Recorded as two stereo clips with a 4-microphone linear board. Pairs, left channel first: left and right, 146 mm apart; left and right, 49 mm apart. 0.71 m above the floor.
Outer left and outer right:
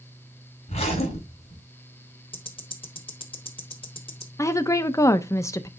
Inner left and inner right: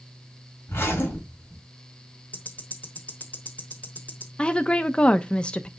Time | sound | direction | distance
0.7 | a zipper | 45° left (ahead or behind) | 4 m
2.3 | ticking | 35° left (ahead or behind) | 1.1 m
4.4 | a woman speaking | 20° left (ahead or behind) | 0.6 m